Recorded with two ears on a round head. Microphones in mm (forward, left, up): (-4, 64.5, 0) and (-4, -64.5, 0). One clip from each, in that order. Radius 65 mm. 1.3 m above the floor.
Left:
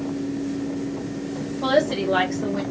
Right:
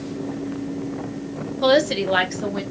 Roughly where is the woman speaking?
Right.